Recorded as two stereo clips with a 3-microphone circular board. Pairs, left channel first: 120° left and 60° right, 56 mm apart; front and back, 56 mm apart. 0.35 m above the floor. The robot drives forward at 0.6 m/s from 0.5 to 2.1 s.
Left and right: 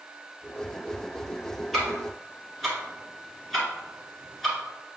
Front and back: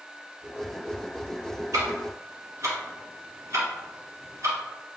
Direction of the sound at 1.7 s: 150° right.